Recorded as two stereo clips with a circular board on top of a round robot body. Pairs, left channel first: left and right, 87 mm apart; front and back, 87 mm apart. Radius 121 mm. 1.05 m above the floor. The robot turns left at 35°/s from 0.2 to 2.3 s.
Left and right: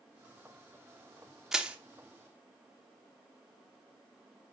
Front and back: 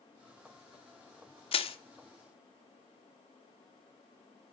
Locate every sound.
1.5 s crushing: 5° right, 1.0 m; by 1.8 s 10° right, 1.0 m